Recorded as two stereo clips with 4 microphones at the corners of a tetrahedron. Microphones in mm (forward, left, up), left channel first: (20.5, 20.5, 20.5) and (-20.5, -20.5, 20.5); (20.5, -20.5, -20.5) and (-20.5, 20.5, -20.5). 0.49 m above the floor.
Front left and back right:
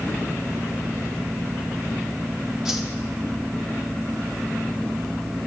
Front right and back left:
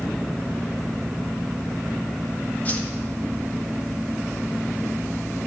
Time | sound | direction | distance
2.6 | a whoosh | 60° right | 1.5 m